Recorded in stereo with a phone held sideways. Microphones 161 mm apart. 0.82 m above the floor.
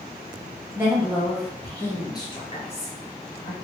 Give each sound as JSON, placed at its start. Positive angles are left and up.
{"t": 0.8, "sound": "a woman speaking", "side_deg": -15, "distance_m": 1.1}